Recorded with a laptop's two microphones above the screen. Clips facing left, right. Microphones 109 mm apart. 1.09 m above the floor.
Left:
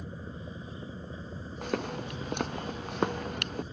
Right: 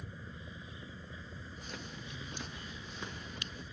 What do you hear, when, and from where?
0.0 s a vehicle: 35° left (ahead or behind)
1.6 s footsteps: 65° left (ahead or behind)